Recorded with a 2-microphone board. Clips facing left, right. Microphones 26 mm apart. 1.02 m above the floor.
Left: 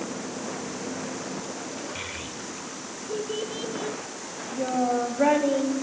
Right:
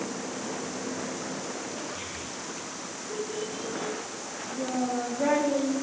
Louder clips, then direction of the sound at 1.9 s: Left 2 dB; 75° left (ahead or behind).